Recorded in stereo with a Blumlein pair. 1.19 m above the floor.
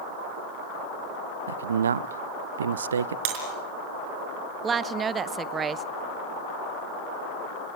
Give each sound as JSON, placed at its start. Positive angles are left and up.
{"t": 1.5, "sound": "a man speaking", "azimuth_deg": -65, "distance_m": 0.6}
{"t": 3.2, "sound": "breaking glass", "azimuth_deg": -45, "distance_m": 5.0}
{"t": 4.6, "sound": "a woman speaking", "azimuth_deg": -20, "distance_m": 0.9}